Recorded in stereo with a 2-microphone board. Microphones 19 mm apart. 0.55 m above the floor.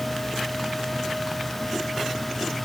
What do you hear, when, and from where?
Only background noise.